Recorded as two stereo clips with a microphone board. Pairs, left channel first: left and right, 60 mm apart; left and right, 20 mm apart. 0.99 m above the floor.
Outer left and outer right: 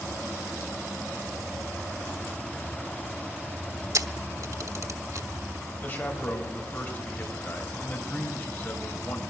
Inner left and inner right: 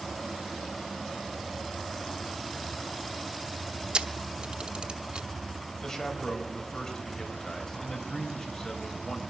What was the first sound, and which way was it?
A camera shutter, 60° right (ahead or behind).